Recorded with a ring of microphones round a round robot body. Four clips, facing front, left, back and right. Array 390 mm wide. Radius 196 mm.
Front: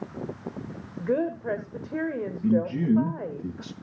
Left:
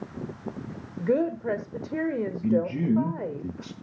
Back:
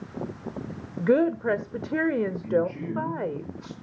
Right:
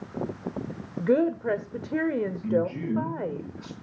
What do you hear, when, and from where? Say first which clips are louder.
1.0 s a woman speaking: right 2 dB, back 5 dB; 170° right, 1.4 m
2.4 s a man speaking: left 4 dB, front 2 dB; 35° left, 8 m